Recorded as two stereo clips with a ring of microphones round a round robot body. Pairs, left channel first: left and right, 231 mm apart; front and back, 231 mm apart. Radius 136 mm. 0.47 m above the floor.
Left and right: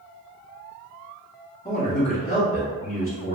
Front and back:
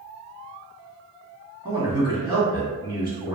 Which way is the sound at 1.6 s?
125° left.